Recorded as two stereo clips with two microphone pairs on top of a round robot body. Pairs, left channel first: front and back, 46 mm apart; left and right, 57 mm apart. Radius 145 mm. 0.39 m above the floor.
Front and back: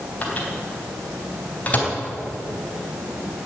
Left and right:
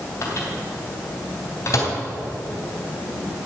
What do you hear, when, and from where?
0.2 s a microwave: 60° left, 3.5 m